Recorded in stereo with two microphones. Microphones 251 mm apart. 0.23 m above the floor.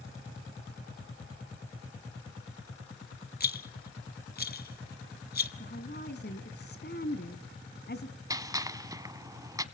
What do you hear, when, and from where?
3.4 s a rattle: 40° left (ahead or behind), 0.8 m
5.6 s a woman speaking: 40° left (ahead or behind), 2 m
8.3 s a gunshot: 15° right (ahead or behind), 1.0 m